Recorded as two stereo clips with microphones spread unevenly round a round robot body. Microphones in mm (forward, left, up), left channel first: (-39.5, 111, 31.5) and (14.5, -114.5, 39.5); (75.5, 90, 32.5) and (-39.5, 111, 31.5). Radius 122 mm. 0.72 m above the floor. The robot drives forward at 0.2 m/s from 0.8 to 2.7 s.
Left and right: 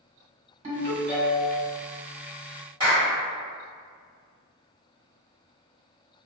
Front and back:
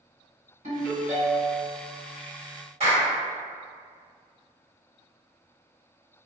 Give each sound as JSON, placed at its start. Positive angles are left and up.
{"t": 0.6, "sound": "a ringtone", "azimuth_deg": -145, "distance_m": 1.6}
{"t": 2.8, "sound": "a clap", "azimuth_deg": -150, "distance_m": 1.8}